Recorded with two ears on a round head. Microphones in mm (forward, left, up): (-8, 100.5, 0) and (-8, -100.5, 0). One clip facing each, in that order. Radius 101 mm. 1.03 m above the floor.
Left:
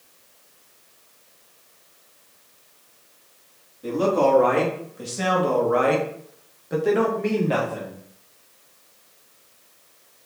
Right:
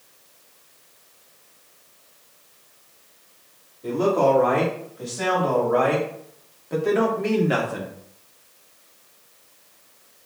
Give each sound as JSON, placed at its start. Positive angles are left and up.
{"t": 3.8, "sound": "a man speaking", "side_deg": 40, "distance_m": 2.0}